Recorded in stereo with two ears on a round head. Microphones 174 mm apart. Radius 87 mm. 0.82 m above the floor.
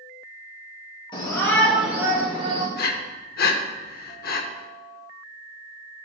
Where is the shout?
25° left (ahead or behind), 2 m; by 2.6 s 35° right (ahead or behind), 2.5 m.